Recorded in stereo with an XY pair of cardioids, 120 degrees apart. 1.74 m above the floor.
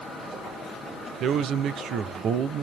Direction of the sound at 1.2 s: 60° right.